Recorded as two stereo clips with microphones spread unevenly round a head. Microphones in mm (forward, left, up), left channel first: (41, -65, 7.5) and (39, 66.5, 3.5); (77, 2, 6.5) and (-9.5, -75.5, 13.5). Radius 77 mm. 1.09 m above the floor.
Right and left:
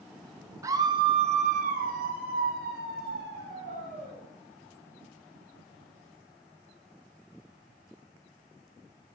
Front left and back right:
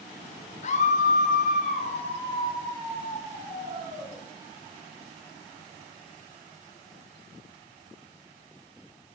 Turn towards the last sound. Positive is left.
turn(degrees=130)